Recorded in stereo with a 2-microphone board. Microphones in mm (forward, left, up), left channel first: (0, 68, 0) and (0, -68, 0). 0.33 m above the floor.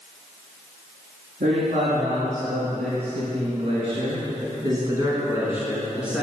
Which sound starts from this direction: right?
A man speaking, at 1.4 s.